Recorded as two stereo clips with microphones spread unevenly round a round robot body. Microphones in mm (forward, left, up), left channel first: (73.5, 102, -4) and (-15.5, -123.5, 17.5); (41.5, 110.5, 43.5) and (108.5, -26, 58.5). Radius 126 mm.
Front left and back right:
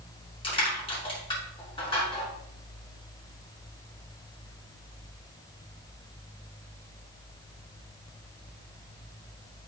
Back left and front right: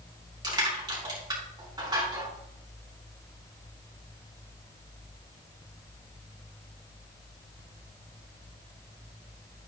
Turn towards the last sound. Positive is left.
turn(degrees=0)